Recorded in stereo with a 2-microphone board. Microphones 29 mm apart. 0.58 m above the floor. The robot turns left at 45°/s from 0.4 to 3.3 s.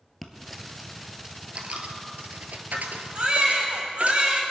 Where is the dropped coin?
10° left (ahead or behind), 1.5 m; by 4.2 s 55° right (ahead or behind), 1.5 m.